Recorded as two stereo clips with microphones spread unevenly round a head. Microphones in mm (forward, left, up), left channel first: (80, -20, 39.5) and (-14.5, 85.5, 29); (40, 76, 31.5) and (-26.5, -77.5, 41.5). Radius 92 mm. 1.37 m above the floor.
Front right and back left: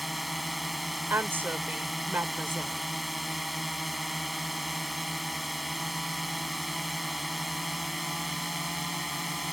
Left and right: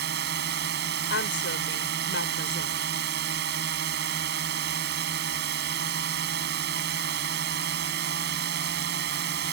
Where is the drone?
140° right.